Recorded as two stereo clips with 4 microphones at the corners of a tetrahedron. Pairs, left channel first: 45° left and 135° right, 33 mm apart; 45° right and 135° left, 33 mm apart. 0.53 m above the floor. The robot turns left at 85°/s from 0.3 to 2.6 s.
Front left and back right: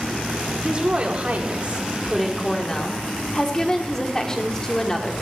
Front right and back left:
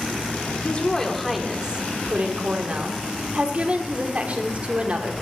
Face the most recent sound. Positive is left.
turn(degrees=110)